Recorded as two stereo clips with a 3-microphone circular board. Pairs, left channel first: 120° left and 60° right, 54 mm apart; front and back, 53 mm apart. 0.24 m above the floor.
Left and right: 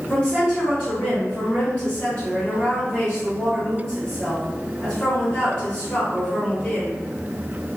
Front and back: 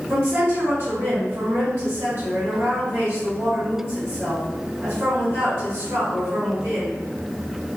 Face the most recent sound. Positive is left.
turn(degrees=-165)